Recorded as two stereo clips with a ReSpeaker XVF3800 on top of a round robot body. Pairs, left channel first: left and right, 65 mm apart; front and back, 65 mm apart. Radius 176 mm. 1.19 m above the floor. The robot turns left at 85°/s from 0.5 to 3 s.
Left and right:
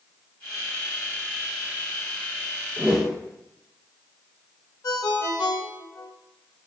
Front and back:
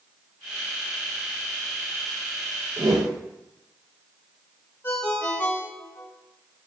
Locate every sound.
2.8 s a whoosh: 150° right, 1.1 m; by 3.1 s 170° right, 1.1 m
4.8 s a ringtone: 55° left, 1.5 m